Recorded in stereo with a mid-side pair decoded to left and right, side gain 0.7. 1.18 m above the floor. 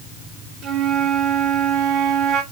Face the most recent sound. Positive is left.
turn(degrees=-60)